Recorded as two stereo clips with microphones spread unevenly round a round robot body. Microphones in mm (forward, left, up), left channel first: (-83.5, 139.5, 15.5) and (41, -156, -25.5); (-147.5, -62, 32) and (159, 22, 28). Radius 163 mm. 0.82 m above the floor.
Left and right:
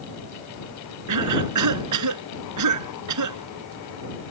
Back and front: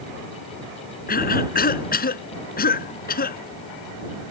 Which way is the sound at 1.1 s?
100° right.